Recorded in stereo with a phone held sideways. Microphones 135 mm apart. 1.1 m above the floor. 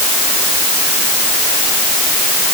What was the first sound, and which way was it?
Only background noise.